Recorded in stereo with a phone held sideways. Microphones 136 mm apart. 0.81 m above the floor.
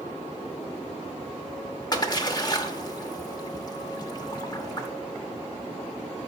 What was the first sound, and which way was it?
A splash, 30° left (ahead or behind).